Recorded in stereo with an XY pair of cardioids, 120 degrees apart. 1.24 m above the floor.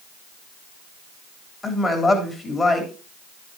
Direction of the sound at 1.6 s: 25° left.